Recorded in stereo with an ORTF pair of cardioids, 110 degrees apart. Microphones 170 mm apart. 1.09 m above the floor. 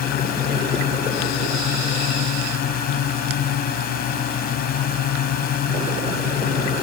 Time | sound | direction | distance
0.0 | a drone | 65° left | ?